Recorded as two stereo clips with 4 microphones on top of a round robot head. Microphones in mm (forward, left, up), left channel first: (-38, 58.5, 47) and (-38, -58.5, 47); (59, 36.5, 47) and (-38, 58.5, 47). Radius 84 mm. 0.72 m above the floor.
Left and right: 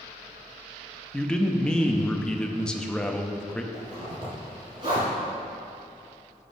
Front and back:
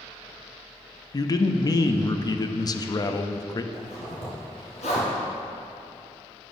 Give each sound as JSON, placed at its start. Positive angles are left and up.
{"t": 1.1, "sound": "a man speaking", "azimuth_deg": 10, "distance_m": 0.7}
{"t": 3.7, "sound": "a zipper", "azimuth_deg": -30, "distance_m": 2.5}